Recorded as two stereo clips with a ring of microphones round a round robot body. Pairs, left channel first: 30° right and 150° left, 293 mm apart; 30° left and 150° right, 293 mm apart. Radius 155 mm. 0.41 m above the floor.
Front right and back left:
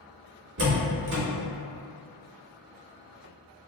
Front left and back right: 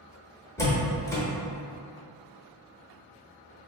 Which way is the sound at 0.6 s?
110° left.